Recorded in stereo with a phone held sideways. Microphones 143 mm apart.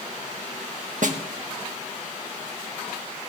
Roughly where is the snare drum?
Right.